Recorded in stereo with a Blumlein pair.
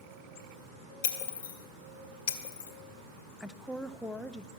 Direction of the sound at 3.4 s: 5° left.